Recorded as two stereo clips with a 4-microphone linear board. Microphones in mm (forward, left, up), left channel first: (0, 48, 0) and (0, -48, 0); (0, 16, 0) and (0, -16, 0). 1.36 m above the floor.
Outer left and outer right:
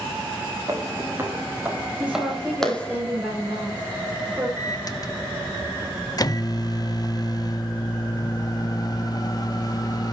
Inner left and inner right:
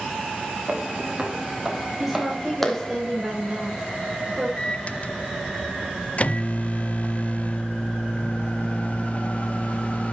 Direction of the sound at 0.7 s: 35° right (ahead or behind).